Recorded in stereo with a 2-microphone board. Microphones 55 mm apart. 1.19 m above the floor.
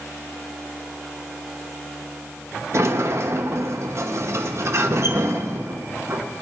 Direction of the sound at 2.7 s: 55° right (ahead or behind).